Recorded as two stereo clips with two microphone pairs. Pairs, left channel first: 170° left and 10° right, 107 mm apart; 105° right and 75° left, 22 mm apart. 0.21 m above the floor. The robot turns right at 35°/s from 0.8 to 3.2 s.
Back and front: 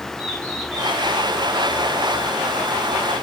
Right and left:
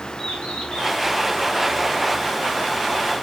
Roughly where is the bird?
Behind.